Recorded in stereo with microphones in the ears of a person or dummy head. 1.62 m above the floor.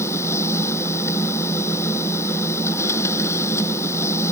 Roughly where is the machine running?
Left.